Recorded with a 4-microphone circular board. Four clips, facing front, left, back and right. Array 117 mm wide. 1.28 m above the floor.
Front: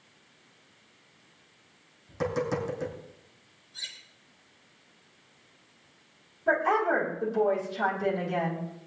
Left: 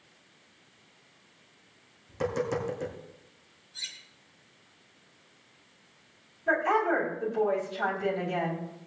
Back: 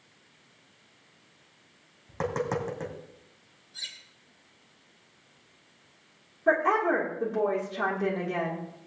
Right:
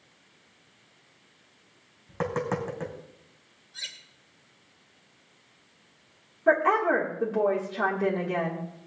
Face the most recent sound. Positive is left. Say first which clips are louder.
# right 4 dB, back 1 dB
turn(degrees=-125)